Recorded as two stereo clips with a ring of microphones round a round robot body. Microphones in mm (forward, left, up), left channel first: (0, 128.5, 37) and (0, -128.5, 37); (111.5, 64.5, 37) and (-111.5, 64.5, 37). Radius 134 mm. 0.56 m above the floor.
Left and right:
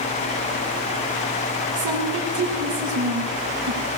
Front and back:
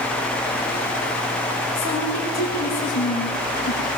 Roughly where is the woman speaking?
Ahead right.